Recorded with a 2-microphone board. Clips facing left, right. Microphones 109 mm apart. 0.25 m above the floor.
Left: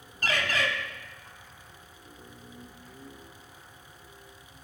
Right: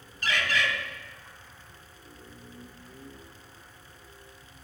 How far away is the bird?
About 0.6 m.